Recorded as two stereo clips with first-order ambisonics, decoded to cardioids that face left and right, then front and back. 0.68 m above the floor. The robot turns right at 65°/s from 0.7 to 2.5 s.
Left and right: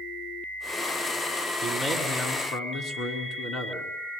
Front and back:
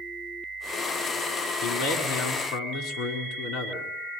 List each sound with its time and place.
1.6 s a man speaking: 10° right, 6 m; by 3.9 s 50° left, 6 m